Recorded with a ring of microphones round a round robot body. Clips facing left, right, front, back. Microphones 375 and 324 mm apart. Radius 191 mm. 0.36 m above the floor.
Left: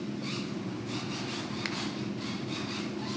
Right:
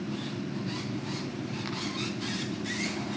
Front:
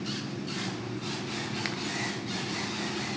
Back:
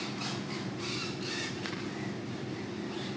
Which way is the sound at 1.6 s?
45° left.